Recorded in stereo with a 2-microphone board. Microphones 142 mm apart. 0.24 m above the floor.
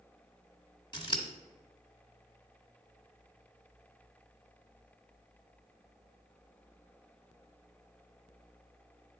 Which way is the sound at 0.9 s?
35° left (ahead or behind).